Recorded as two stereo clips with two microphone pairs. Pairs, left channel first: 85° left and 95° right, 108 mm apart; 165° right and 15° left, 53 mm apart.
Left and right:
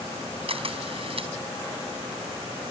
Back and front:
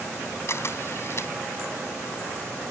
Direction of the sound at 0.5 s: 125° right.